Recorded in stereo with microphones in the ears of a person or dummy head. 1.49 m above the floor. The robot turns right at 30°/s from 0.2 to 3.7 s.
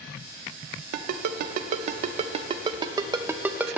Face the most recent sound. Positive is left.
turn(degrees=-5)  # may be behind; listen again after turning